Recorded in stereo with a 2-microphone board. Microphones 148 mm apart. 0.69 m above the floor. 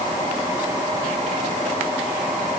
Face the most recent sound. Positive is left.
No sound to turn to.